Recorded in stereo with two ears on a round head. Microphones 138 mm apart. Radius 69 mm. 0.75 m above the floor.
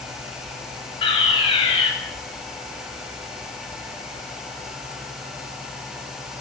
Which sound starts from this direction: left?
A fire alarm, at 1.0 s.